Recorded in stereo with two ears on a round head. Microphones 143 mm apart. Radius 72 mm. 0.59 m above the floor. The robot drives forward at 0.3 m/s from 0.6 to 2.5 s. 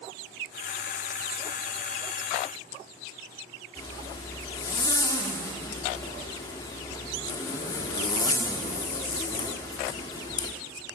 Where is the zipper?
20° left (ahead or behind), 1.4 m.